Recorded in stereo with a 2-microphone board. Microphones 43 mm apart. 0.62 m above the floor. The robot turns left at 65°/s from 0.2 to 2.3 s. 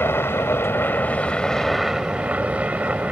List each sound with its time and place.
0.0 s a helicopter: 100° left; by 3.1 s 35° right